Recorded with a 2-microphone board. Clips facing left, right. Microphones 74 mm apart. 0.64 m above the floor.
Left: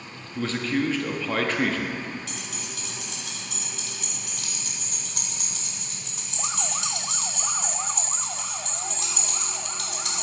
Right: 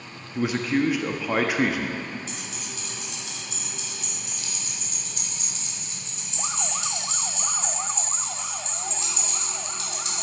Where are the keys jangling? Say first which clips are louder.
Even; 70° left (ahead or behind), 1.6 m.